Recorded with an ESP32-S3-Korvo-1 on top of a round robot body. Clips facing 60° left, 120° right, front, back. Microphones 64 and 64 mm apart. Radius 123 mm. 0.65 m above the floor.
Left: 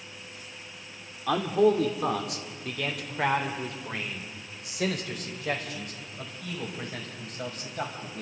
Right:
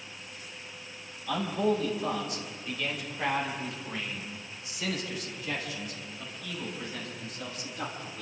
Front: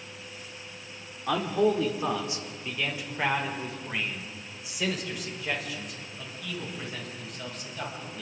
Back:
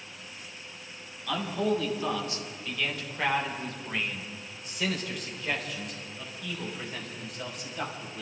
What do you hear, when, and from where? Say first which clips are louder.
1.3 s a man speaking: left 6 dB, front 4 dB; 55° left, 3 m; by 8.2 s 95° left, 6 m